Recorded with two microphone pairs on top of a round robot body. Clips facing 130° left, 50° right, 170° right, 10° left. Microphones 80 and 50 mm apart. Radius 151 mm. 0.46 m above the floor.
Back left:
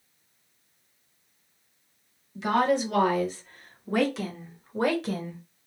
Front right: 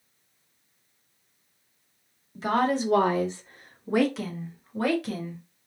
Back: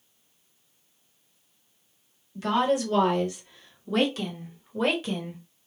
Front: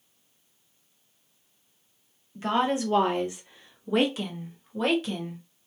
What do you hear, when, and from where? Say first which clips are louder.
2.4 s a woman speaking: back left 1 dB, back 1 dB; 45° right, 1.7 m; by 5.4 s 125° left, 1.3 m